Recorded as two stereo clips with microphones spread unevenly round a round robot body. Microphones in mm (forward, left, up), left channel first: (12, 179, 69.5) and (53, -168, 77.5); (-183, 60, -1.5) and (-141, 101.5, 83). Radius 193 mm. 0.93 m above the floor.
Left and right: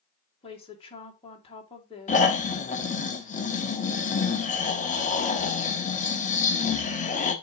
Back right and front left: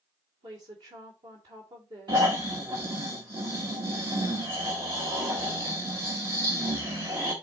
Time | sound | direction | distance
0.4 | a woman speaking | 25° left | 2.5 m
2.1 | snoring | 25° left | 1.2 m